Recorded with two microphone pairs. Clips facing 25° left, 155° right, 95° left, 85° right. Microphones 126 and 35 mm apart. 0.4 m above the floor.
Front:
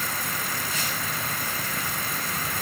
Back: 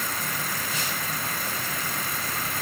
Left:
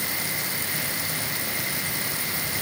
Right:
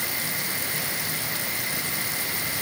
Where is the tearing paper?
I don't hear tearing paper.